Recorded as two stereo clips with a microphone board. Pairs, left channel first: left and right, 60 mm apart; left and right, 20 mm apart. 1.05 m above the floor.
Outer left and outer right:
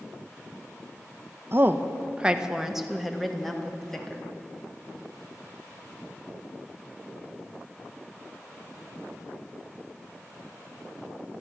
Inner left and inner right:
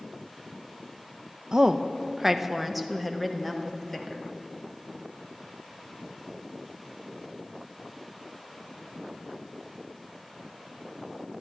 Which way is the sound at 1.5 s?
40° right (ahead or behind).